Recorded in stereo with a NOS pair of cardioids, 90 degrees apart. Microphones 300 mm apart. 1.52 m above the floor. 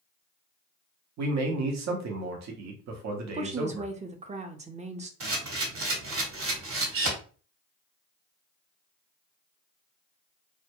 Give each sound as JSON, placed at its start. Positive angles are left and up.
{"t": 1.2, "sound": "a man speaking", "azimuth_deg": -65, "distance_m": 0.8}
{"t": 3.3, "sound": "a woman speaking", "azimuth_deg": -25, "distance_m": 0.5}
{"t": 5.2, "sound": "a camera shutter", "azimuth_deg": -45, "distance_m": 1.0}